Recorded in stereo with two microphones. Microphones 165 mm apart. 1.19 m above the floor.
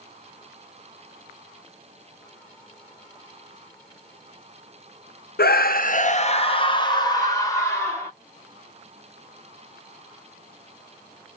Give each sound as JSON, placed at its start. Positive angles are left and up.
{"t": 5.4, "sound": "a scream", "side_deg": 70, "distance_m": 0.5}